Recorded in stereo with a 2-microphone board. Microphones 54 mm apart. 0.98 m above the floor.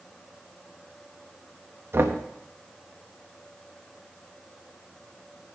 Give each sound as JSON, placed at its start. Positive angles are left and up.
{"t": 1.9, "sound": "knocking", "side_deg": -50, "distance_m": 1.0}